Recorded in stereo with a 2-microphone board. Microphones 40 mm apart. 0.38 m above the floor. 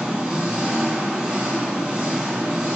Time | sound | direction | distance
0.0 | an engine running | 5° right (ahead or behind) | 3.5 m